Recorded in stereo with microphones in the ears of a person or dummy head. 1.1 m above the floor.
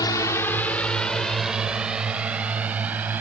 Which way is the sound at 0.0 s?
20° left (ahead or behind).